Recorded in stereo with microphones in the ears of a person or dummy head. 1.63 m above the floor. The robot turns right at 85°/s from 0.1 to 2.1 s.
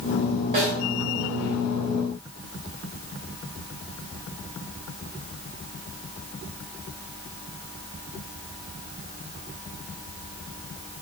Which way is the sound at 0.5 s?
30° right (ahead or behind).